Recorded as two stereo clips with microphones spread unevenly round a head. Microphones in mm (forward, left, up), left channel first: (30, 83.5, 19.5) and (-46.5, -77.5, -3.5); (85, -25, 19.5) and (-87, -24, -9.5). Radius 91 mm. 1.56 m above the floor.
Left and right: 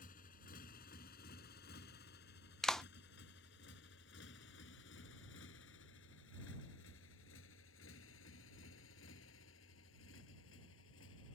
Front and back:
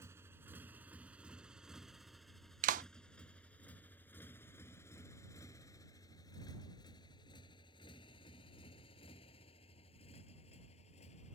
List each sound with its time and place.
0.0 s a motorcycle: 100° left; by 11.3 s 55° left
2.6 s a clap: 145° left